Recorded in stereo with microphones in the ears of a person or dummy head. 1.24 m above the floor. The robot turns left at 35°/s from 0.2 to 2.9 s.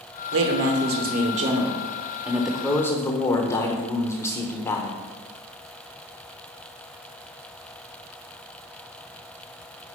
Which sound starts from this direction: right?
A man speaking, at 0.3 s.